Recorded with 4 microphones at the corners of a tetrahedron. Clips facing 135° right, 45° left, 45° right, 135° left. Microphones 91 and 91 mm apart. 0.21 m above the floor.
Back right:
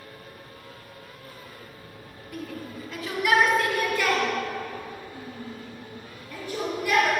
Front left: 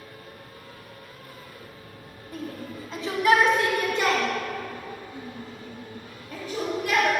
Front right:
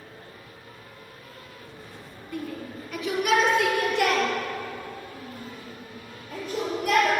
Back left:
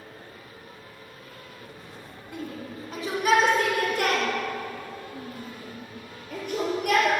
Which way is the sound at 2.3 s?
80° left.